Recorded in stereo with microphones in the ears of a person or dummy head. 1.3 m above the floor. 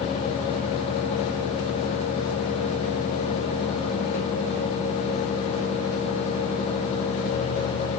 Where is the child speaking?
I don't hear a child speaking.